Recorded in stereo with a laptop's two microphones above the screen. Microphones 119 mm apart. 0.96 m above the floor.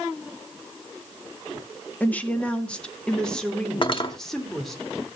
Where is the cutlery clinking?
45° left (ahead or behind), 0.8 m.